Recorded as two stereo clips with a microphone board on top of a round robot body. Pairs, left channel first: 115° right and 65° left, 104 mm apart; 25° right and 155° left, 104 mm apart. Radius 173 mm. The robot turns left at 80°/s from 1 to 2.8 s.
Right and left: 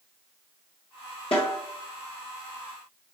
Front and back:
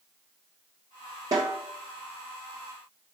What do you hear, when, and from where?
1.3 s a snare drum: 145° right, 0.7 m; by 1.6 s 165° right, 0.7 m